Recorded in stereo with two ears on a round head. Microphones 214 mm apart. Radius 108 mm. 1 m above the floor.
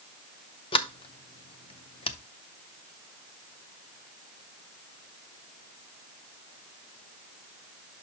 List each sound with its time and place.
0.7 s a sliding door: 25° left (ahead or behind), 0.7 m